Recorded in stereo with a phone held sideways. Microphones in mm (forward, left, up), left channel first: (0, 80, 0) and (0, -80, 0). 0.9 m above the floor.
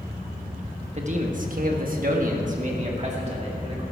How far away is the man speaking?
About 1.5 m.